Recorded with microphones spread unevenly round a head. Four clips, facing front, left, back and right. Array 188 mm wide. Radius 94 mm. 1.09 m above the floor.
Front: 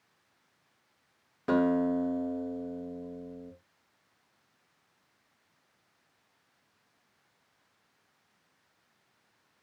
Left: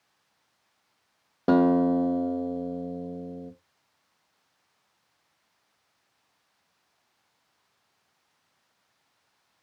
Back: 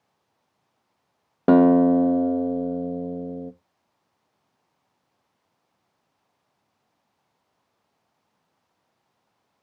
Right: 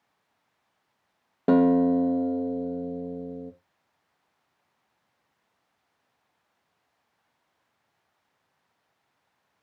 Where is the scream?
No scream in this recording.